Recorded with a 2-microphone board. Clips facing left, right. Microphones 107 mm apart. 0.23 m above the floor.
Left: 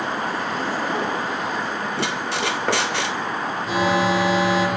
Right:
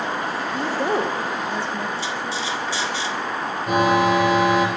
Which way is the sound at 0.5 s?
80° right.